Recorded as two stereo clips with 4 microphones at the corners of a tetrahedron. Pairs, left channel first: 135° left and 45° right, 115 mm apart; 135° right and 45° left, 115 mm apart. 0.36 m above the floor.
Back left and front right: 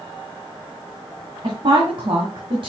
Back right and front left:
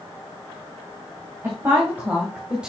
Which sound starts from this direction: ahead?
A woman speaking, at 1.4 s.